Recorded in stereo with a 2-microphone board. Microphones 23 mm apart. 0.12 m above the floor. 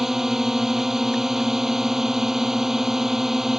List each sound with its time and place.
0.0 s a drone: 15° right (ahead or behind)